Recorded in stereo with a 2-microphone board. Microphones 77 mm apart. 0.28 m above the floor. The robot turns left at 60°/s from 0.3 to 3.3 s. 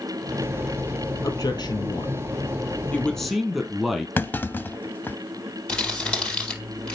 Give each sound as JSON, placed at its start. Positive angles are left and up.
{"t": 1.2, "sound": "a man speaking", "azimuth_deg": 125, "distance_m": 3.5}
{"t": 4.2, "sound": "a clunk", "side_deg": 25, "distance_m": 0.7}
{"t": 5.7, "sound": "crumpling", "side_deg": 15, "distance_m": 4.5}